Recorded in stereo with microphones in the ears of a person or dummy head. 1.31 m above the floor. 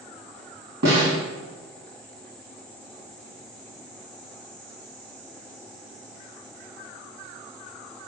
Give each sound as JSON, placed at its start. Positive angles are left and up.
{"t": 0.8, "sound": "a snare drum", "side_deg": -60, "distance_m": 3.0}